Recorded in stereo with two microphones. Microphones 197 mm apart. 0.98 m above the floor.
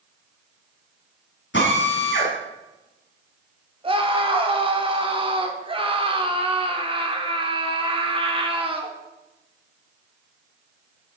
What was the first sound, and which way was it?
A drill, 70° left (ahead or behind).